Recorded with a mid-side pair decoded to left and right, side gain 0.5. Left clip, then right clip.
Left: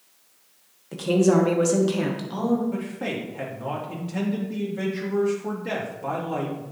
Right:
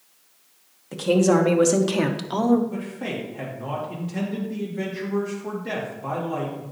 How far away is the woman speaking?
About 1.5 m.